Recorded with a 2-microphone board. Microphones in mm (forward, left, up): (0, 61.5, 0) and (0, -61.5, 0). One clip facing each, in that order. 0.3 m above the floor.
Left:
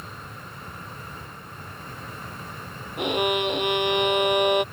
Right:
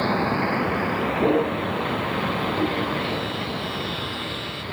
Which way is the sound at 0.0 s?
80° right.